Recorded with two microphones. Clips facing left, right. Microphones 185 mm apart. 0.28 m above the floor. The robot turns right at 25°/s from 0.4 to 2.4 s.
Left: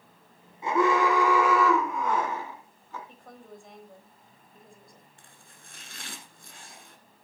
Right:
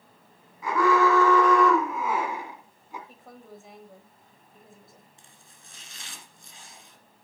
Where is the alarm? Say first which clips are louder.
Right 2 dB; 150° left, 2 m; by 3.0 s 165° right, 2 m.